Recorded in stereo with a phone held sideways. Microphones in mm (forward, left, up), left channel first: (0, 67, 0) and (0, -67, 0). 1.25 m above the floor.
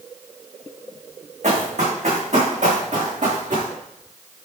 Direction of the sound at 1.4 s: 55° right (ahead or behind).